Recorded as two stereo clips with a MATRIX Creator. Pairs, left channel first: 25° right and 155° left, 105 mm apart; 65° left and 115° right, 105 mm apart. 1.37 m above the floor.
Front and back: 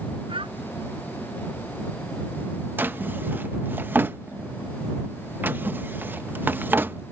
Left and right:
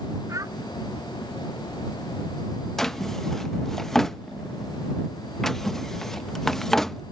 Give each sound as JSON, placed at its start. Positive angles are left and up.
{"t": 0.3, "sound": "a child speaking", "azimuth_deg": -170}
{"t": 2.8, "sound": "a drawer", "azimuth_deg": 145}